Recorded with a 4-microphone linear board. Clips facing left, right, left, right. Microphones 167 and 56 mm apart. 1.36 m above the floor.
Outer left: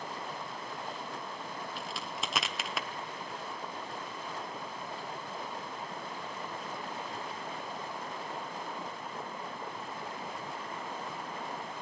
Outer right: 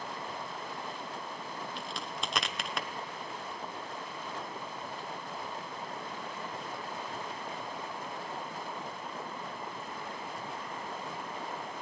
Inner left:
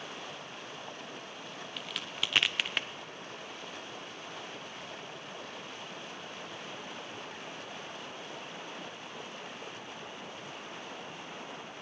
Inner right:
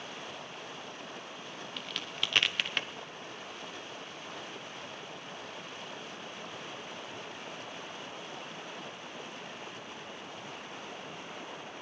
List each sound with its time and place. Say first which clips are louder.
1.8 s a crack: even, even; 5° left (ahead or behind), 0.8 m